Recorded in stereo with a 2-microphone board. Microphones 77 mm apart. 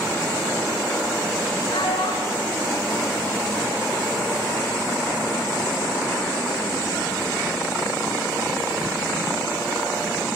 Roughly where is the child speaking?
Left.